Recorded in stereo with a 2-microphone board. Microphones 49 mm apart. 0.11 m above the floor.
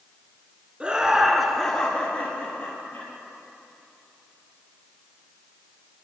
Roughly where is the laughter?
Right.